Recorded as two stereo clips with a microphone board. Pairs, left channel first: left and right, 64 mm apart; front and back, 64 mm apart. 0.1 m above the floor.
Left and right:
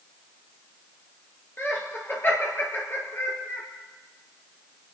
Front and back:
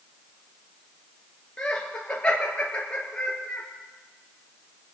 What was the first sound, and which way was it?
Laughter, 60° left.